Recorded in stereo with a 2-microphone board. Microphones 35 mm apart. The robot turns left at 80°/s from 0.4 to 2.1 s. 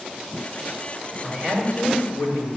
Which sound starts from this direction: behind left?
A man speaking, at 1.2 s.